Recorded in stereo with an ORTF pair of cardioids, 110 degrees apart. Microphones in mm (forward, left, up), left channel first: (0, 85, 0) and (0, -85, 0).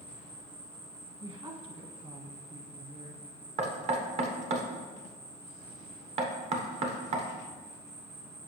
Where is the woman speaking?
30° right, 1.2 m.